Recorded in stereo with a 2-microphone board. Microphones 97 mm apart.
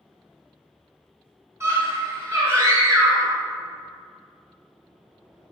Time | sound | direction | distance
1.6 | a scream | 30° right (ahead or behind) | 1.9 m